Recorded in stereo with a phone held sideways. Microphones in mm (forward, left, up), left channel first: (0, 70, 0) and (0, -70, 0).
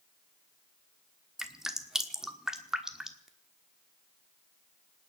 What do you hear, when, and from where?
1.4 s dripping: 5° right (ahead or behind), 1.3 m